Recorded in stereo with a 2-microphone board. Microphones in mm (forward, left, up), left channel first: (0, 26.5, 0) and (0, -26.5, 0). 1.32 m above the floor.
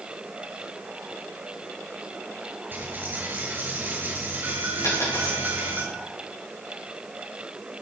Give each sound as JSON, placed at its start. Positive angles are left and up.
{"t": 2.7, "sound": "a dropped coin", "side_deg": -35, "distance_m": 6.5}
{"t": 4.8, "sound": "a dropped coin", "side_deg": 80, "distance_m": 7.0}